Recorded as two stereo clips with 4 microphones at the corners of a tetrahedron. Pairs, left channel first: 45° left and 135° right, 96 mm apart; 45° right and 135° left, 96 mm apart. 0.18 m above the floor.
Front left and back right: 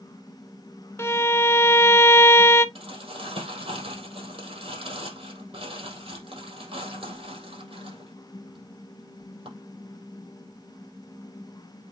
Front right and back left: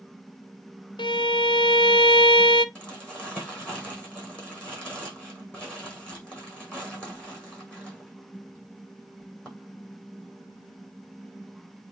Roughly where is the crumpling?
Behind right.